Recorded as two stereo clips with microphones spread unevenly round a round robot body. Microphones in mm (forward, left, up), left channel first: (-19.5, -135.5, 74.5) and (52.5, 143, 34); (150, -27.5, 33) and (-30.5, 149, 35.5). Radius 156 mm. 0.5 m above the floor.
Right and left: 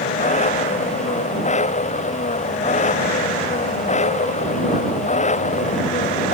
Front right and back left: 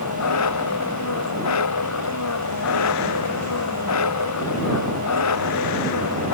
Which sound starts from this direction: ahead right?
An engine running, at 0.0 s.